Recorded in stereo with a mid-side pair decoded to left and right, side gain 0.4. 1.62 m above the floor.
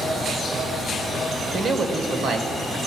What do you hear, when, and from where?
1.5 s a man speaking: 65° right, 1.3 m; by 2.8 s 80° right, 1.9 m